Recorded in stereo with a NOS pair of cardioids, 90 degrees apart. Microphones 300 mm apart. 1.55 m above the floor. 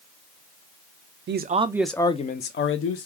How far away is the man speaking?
About 0.6 m.